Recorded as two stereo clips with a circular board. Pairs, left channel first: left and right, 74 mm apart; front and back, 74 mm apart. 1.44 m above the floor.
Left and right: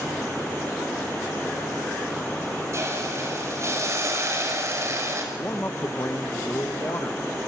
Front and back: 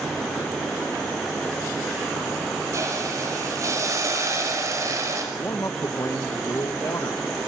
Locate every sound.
2.7 s a hiss: 135° right, 6 m
5.3 s a man speaking: 40° left, 1.3 m